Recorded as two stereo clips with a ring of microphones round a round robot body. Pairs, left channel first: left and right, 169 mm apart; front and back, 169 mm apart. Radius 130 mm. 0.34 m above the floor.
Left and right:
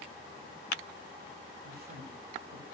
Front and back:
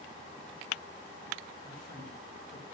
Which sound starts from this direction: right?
A man speaking, at 1.6 s.